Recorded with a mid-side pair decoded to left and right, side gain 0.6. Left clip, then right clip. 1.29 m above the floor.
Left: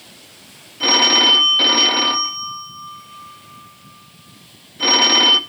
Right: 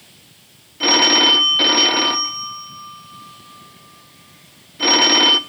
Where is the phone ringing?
15° right, 0.6 m.